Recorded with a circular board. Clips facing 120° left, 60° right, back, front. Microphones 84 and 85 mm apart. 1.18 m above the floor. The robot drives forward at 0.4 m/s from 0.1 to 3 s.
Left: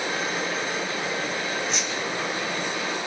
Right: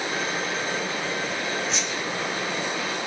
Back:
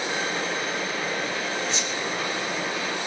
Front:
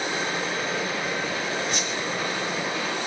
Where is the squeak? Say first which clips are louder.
Even, front 1 dB; 30° left, 2.5 m.